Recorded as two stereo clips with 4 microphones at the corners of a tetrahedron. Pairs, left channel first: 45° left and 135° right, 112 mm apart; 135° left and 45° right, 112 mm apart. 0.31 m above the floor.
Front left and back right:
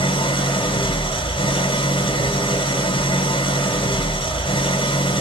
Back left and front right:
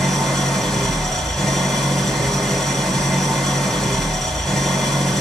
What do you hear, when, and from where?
0.0 s an engine running: 50° left, 1.4 m